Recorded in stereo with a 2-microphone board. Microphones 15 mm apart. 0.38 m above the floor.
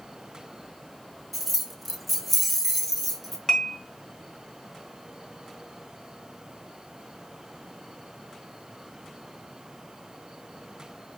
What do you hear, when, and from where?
1.3 s keys jangling: 5° left (ahead or behind), 0.7 m
3.5 s dishes clattering: 30° left (ahead or behind), 0.9 m